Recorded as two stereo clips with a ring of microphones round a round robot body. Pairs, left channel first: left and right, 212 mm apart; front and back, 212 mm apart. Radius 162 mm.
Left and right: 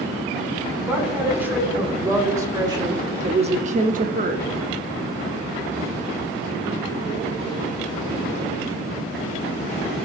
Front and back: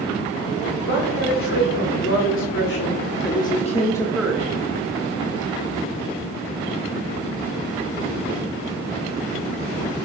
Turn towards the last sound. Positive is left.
turn(degrees=-110)